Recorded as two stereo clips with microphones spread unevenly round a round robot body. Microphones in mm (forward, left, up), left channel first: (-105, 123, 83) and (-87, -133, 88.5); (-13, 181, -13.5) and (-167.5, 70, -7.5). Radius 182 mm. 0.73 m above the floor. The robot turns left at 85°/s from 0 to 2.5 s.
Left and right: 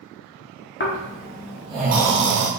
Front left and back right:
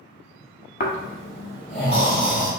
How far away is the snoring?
About 0.6 m.